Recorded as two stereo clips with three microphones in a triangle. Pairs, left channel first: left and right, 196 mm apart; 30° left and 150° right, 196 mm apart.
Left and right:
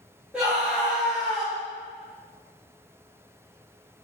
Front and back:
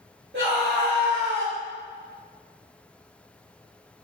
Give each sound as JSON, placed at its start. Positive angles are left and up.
{"t": 0.3, "sound": "a scream", "azimuth_deg": -175, "distance_m": 2.5}